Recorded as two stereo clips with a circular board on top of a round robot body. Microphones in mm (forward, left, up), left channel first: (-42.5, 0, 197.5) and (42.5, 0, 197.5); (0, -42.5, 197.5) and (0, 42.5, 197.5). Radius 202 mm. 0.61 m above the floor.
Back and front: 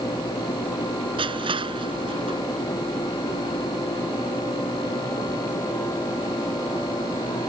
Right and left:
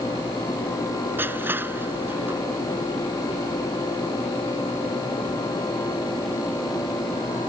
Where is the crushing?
20° left.